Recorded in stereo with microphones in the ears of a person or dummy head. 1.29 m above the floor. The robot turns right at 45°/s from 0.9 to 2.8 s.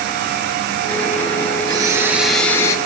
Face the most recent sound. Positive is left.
turn(degrees=25)